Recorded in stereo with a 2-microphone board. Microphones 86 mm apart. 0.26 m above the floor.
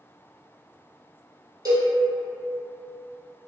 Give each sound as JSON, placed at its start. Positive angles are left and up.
{"t": 1.6, "sound": "a cowbell", "side_deg": -45, "distance_m": 1.2}